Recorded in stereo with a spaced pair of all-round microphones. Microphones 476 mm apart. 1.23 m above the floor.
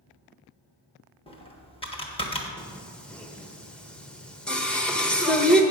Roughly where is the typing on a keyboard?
Centre.